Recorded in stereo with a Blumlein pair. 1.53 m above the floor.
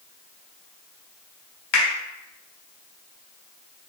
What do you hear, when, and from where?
1.7 s a finger snap: 45° left, 1.2 m